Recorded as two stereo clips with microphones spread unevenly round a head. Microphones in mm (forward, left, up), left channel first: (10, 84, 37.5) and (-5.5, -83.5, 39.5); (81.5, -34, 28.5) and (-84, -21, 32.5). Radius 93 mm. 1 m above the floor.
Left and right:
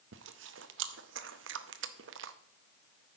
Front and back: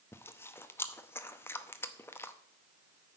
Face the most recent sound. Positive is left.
turn(degrees=-80)